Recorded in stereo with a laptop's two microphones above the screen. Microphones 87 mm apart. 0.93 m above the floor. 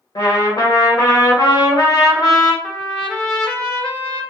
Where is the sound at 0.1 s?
55° left (ahead or behind), 1.0 m.